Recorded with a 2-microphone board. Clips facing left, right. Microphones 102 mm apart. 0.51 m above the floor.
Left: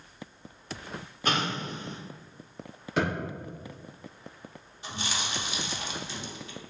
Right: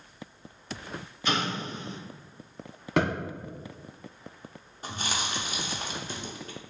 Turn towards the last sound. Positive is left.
turn(degrees=-45)  # may be behind; listen again after turning